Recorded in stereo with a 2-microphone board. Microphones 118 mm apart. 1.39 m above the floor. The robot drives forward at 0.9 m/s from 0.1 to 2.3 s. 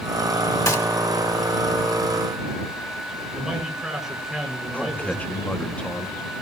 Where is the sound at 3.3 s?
5° right (ahead or behind), 6.5 m.